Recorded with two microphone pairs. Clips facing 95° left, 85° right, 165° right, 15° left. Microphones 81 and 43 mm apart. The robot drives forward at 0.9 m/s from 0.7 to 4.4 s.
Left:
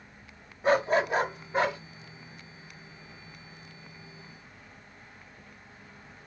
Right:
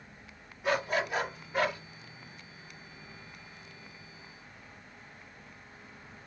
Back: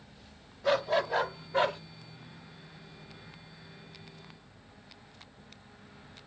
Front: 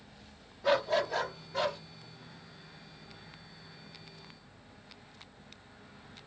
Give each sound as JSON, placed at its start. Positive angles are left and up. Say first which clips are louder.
{"t": 0.6, "sound": "a dog barking", "louder": "left 6 dB, back 1 dB", "azimuth_deg": 95, "distance_m": 1.0}